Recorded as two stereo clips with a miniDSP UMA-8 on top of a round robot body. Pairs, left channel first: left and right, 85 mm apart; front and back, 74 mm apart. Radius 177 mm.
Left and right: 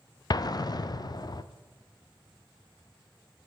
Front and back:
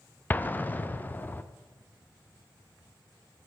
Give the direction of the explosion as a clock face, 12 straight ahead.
10 o'clock.